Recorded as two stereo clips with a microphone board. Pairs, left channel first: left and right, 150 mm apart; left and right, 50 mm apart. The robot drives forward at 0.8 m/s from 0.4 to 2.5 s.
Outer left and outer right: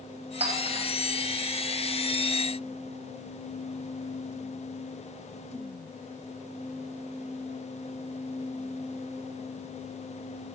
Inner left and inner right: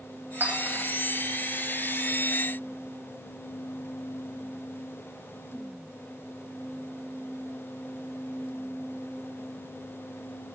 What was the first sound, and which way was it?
A clink, 45° right (ahead or behind).